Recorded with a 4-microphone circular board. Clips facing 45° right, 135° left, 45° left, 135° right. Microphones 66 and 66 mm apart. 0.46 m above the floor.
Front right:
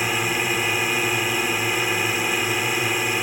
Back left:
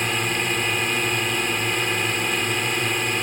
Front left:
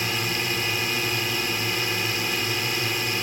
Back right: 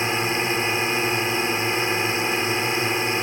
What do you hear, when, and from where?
0.0 s a drone: 120° right